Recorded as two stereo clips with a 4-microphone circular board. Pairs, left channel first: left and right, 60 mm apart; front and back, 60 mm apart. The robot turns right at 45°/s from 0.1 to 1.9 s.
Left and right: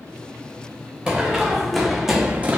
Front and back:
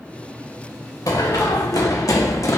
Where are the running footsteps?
5° right, 1.1 m; by 2.6 s 30° right, 0.7 m.